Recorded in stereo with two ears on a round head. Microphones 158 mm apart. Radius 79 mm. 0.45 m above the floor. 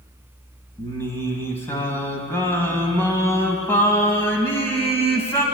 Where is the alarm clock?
No alarm clock in this recording.